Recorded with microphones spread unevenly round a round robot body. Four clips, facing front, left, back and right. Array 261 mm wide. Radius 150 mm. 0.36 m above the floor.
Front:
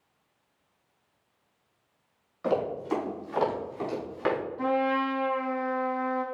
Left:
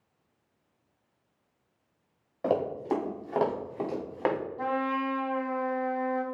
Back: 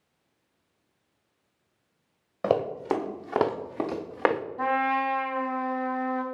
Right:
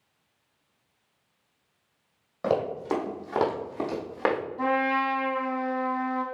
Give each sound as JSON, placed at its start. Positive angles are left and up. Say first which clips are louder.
{"t": 2.4, "sound": "running footsteps", "louder": "right 1 dB, back 2 dB", "azimuth_deg": -170, "distance_m": 3.0}
{"t": 4.6, "sound": "a trumpet", "louder": "right 5 dB, back 1 dB", "azimuth_deg": -165, "distance_m": 3.0}